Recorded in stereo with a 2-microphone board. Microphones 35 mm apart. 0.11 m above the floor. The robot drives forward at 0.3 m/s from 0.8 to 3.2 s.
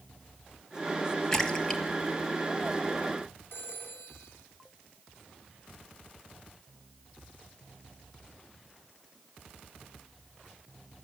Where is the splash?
15° left (ahead or behind), 1.8 m; by 1.8 s 10° left (ahead or behind), 2.0 m.